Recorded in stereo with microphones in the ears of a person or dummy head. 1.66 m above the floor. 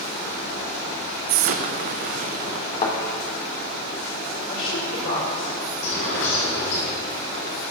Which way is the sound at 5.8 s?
65° left (ahead or behind).